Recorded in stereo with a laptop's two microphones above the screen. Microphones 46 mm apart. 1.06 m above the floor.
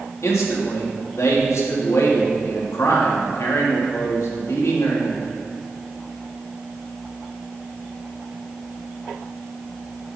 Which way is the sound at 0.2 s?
80° left.